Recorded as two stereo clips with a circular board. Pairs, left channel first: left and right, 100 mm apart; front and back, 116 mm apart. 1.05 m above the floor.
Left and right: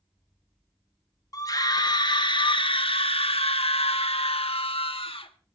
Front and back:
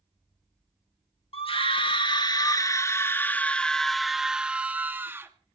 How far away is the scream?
About 1.6 m.